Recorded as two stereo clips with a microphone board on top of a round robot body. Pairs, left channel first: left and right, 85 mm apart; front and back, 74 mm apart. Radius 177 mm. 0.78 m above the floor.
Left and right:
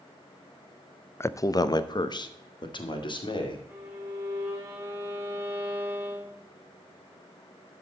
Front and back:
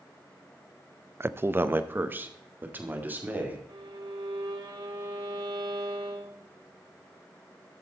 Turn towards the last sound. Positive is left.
turn(degrees=-155)